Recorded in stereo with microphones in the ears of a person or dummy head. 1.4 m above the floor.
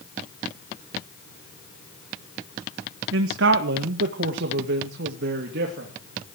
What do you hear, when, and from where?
3.1 s a man speaking: 75° right (ahead or behind), 1.3 m; by 5.9 s 70° right (ahead or behind), 3 m